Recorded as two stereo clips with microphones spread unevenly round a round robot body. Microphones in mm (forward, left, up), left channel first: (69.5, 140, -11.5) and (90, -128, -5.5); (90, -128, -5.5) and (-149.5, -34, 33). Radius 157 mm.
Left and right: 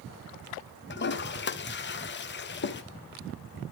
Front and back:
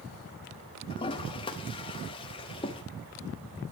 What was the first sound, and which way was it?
A toilet flushing, 45° left.